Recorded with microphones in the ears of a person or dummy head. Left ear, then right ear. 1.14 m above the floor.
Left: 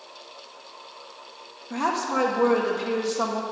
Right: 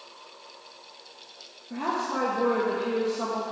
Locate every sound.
1.7 s a woman speaking: 35° left (ahead or behind), 0.9 m